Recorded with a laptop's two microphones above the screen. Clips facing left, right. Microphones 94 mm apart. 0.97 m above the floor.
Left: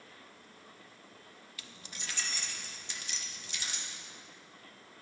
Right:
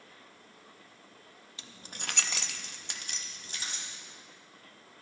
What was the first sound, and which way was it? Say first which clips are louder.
Keys jangling: right 4 dB; 25° right (ahead or behind).